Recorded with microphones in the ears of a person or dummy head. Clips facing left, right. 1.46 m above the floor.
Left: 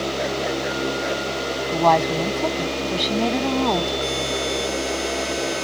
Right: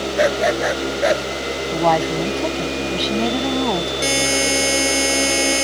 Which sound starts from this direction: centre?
A woman speaking, at 1.7 s.